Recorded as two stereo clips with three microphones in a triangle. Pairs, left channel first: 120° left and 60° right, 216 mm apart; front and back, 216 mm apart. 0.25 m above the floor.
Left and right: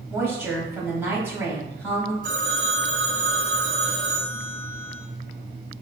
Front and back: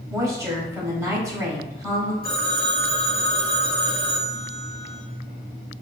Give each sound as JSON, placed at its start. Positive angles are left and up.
{"t": 0.1, "sound": "a woman speaking", "azimuth_deg": -125, "distance_m": 1.0}
{"t": 2.2, "sound": "a phone ringing", "azimuth_deg": -175, "distance_m": 1.7}